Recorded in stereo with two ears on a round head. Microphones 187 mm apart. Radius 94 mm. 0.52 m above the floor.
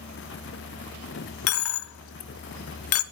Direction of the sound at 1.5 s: 75° left (ahead or behind).